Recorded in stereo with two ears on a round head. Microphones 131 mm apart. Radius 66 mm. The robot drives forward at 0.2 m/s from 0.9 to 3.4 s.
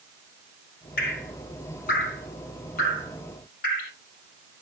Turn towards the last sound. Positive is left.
turn(degrees=70)  # may be behind; listen again after turning